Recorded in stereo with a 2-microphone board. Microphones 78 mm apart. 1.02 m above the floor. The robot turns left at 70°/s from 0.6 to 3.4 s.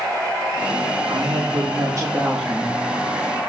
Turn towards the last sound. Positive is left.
turn(degrees=125)